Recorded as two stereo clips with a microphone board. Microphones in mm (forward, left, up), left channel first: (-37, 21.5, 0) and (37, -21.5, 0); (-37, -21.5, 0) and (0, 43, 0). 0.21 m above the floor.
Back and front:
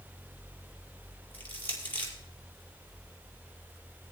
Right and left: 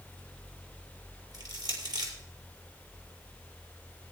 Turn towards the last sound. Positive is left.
turn(degrees=85)